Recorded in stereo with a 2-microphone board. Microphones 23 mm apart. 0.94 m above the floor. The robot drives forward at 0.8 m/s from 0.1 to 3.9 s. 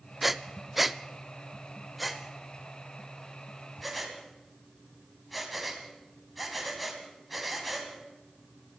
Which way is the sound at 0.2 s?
5° right (ahead or behind).